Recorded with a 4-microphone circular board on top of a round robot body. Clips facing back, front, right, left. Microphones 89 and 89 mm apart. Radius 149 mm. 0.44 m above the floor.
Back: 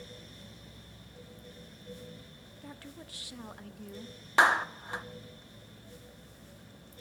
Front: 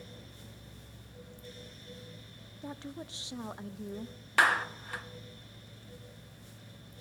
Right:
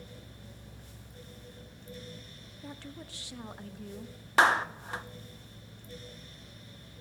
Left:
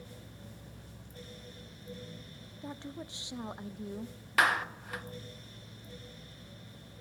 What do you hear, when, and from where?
2.6 s a woman speaking: 45° left, 0.9 m
4.4 s a clap: 130° right, 1.3 m